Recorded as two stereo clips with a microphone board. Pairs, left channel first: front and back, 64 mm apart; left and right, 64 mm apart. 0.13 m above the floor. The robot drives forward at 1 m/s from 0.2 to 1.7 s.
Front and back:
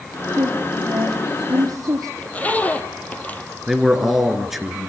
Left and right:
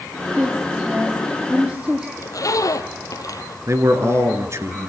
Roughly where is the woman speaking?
Behind right.